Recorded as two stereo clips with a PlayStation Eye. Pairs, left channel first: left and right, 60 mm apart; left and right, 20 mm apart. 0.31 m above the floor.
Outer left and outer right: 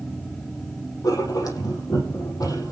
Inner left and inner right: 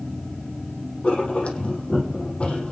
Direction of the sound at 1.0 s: 80° left.